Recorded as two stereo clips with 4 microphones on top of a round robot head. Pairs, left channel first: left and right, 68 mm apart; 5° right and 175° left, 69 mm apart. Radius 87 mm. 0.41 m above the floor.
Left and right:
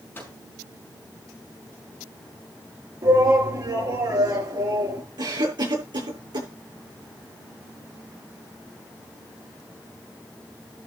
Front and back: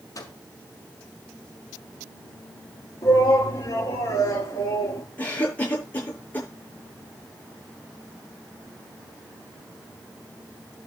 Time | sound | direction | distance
0.1 | a microwave | 25° left | 6 m
3.0 | a shout | 50° right | 8.5 m
5.2 | a cough | 75° right | 7.5 m